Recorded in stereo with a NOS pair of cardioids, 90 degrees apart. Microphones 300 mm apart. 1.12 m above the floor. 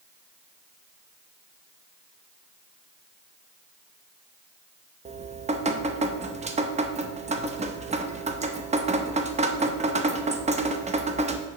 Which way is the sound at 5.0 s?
25° right.